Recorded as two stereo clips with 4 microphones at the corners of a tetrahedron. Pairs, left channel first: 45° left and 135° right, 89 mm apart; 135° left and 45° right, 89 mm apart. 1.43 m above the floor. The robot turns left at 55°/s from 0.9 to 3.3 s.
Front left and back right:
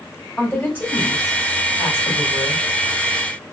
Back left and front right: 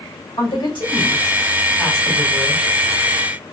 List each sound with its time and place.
0.4 s a woman speaking: 115° left, 3 m; by 2.6 s 25° left, 3 m